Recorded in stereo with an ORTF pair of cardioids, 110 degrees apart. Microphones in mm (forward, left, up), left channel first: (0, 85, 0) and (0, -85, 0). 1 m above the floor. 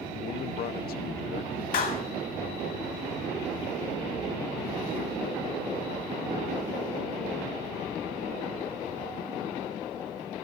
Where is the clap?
60° left, 3 m.